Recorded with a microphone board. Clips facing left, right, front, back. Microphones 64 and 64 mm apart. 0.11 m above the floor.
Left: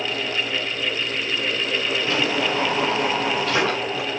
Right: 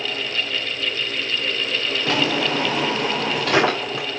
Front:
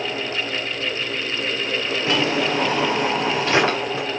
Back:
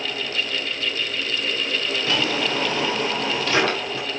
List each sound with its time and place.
2.0 s a drawer: 65° right, 4.5 m